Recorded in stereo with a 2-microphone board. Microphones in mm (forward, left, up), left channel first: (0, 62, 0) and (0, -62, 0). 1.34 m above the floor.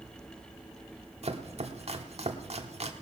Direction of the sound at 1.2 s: 60° right (ahead or behind).